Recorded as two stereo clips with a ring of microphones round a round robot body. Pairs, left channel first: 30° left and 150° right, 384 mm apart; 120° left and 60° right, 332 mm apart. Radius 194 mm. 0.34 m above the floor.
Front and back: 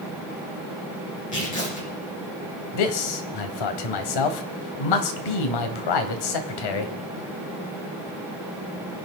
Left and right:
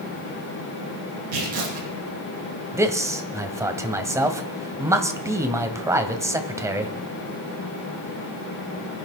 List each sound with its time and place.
1.3 s tearing paper: 40° right, 6 m
2.7 s a man speaking: 20° left, 1.7 m